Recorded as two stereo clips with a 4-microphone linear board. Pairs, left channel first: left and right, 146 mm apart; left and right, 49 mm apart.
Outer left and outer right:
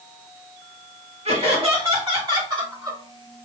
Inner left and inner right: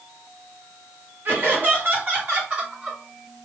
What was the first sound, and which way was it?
Laughter, 50° right (ahead or behind).